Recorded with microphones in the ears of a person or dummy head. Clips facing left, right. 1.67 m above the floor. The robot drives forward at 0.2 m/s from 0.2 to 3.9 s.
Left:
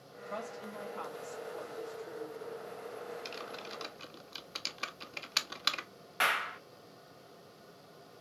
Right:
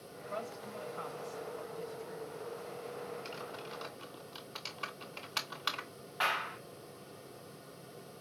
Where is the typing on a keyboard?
30° left (ahead or behind), 0.8 m; by 5.9 s 35° left (ahead or behind), 0.7 m.